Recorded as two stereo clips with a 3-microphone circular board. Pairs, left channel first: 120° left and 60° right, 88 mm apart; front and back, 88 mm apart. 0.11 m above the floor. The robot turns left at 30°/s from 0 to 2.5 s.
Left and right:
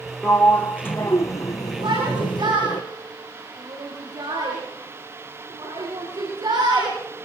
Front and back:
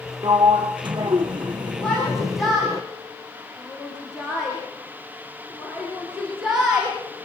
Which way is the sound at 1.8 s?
80° right.